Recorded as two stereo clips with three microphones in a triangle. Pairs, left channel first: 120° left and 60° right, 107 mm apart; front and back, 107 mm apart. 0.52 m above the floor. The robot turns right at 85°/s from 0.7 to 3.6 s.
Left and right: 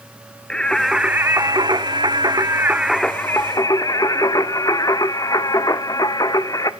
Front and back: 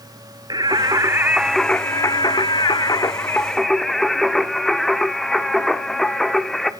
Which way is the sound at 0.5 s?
160° right.